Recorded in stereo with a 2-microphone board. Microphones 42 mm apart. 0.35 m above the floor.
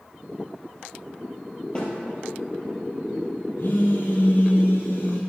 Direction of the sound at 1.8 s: 25° left (ahead or behind).